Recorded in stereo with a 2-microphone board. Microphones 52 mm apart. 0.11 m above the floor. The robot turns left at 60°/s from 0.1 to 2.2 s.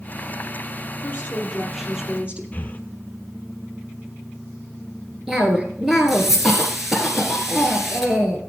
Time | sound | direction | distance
1.0 | a woman speaking | 45° left | 3.5 m
2.5 | breathing | 35° left (ahead or behind) | 1.0 m
5.3 | a cough | 5° right (ahead or behind) | 1.7 m